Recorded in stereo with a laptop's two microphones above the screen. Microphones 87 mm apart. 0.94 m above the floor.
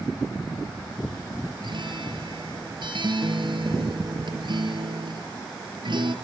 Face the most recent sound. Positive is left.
turn(degrees=-65)  # may be behind; listen again after turning